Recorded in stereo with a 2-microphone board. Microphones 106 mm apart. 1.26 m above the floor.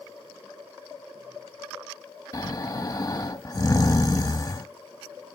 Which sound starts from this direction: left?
Snoring, at 2.3 s.